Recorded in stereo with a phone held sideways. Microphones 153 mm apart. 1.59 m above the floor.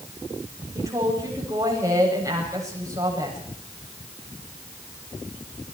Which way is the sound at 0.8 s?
25° right (ahead or behind).